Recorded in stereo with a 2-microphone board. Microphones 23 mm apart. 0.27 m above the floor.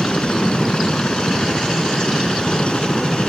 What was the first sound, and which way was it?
A helicopter, 55° left (ahead or behind).